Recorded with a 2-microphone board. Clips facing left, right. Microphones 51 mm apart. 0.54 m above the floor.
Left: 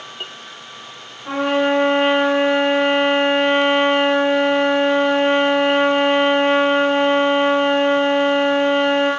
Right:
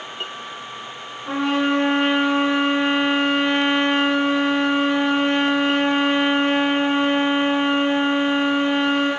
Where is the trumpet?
25° left (ahead or behind), 2.5 m.